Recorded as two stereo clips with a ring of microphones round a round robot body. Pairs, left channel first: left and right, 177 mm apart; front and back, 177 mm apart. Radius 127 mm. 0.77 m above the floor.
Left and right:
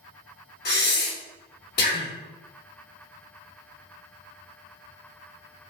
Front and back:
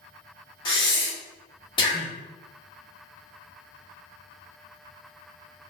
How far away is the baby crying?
I don't hear a baby crying.